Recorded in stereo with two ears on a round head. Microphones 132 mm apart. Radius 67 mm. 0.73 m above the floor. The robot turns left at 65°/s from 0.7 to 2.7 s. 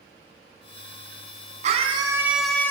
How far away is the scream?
About 7.5 m.